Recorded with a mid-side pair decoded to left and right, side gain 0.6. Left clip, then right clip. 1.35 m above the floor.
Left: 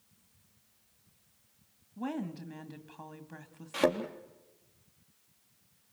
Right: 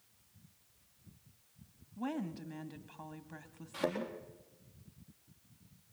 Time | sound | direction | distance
2.0 | a woman speaking | 10° left | 2 m
3.7 | a thud | 55° left | 4 m